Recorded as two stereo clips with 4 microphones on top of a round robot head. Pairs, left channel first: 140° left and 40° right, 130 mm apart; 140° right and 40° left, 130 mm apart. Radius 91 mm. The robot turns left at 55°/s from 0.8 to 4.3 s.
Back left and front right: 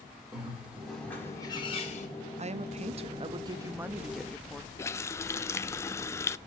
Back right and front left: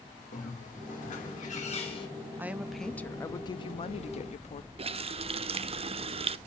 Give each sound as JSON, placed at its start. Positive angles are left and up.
{"t": 0.3, "sound": "a bird", "azimuth_deg": -125, "distance_m": 3.0}
{"t": 2.4, "sound": "a woman speaking", "azimuth_deg": -30, "distance_m": 0.7}
{"t": 4.8, "sound": "a running tap", "azimuth_deg": 75, "distance_m": 0.5}